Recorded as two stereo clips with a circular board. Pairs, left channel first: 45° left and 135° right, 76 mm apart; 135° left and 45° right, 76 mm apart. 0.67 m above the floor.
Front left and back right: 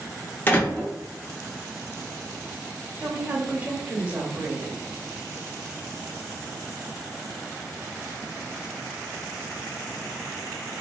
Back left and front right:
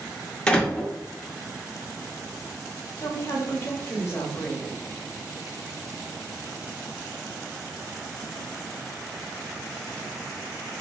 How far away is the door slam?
About 0.6 m.